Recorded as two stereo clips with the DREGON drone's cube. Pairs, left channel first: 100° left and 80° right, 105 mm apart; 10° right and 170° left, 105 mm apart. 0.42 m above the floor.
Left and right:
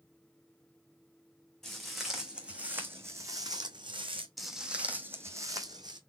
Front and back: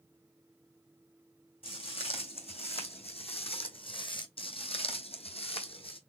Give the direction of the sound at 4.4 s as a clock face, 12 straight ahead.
12 o'clock.